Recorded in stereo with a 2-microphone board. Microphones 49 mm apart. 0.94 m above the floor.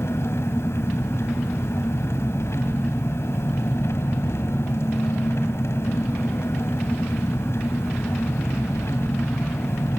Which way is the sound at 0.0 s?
65° left (ahead or behind).